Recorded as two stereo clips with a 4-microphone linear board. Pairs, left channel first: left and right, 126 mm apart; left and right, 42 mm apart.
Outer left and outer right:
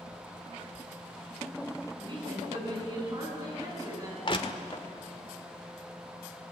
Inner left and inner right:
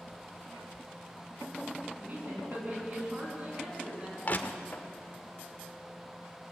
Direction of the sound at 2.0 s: 40° right (ahead or behind).